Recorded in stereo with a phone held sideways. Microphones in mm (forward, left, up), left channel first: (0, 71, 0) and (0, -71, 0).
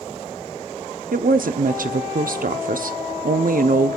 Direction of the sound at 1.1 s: 80° right.